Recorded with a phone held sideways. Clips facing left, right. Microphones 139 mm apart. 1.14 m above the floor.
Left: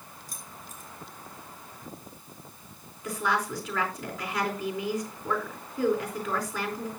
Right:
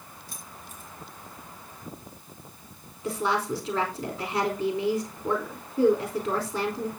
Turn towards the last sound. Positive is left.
turn(degrees=-25)  # may be behind; listen again after turning